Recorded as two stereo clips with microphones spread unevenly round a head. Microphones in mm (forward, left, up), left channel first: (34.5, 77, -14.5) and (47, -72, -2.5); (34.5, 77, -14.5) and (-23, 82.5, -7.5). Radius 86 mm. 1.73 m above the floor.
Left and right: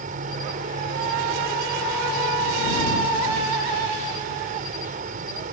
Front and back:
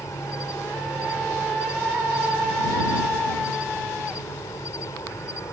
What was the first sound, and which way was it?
An insect, 60° right.